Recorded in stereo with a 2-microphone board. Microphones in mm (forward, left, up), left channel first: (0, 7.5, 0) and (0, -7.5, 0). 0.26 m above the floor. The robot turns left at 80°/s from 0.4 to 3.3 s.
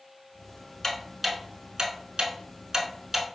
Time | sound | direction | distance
0.8 | ticking | 25° left (ahead or behind) | 0.7 m